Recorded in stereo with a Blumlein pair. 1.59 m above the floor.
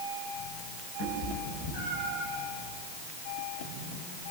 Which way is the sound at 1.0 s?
40° left.